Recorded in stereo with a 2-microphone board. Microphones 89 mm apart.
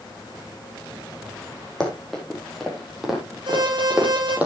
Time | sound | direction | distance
1.8 | running footsteps | 5° left (ahead or behind) | 4 m
3.5 | an alarm | 55° right (ahead or behind) | 7.5 m